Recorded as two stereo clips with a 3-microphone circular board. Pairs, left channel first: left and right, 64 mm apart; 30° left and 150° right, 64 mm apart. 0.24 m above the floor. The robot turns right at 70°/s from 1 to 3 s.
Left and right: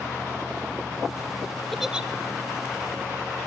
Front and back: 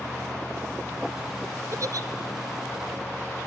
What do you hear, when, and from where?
1.7 s a giggle: 175° left, 0.9 m; by 2.1 s 160° right, 0.9 m